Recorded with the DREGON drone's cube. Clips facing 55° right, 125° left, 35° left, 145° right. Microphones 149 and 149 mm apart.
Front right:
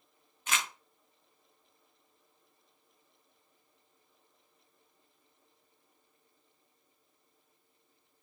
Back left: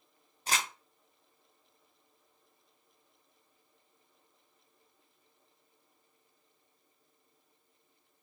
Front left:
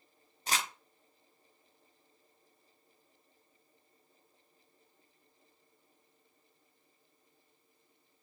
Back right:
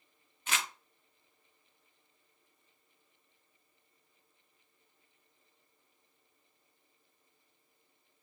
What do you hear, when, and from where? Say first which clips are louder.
0.5 s crumpling: back left 1 dB, front left 2 dB; 80° left, 0.6 m